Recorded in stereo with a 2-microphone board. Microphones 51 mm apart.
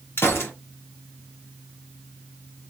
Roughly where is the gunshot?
Left.